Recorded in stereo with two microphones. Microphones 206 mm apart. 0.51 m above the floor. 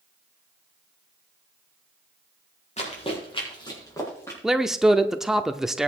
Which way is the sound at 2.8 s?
35° left (ahead or behind).